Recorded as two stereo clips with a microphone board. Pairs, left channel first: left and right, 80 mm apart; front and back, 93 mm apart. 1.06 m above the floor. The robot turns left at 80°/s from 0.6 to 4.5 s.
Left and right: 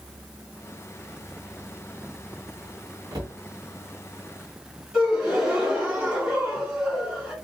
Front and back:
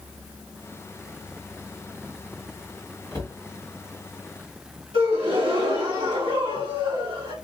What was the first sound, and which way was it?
A cupboard door, 55° right.